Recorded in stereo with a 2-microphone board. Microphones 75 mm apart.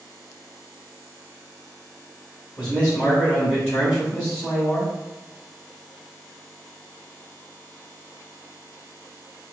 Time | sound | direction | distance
2.6 | a man speaking | 10° left (ahead or behind) | 1.7 m